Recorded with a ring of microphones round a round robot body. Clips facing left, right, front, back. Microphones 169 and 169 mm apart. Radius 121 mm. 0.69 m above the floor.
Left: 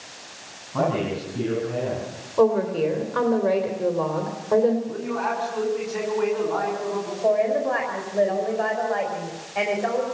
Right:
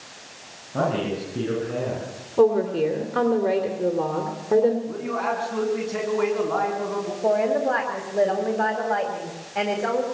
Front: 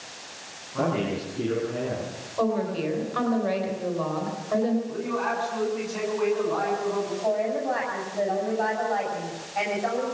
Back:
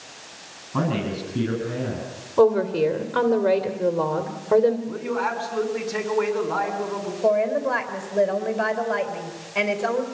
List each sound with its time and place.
0.7 s a man speaking: 160° right, 9 m; by 2.1 s 155° right, 8.5 m
2.4 s a woman speaking: 155° right, 2.5 m
4.9 s a man speaking: 145° right, 6 m
7.2 s a woman speaking: 150° right, 4 m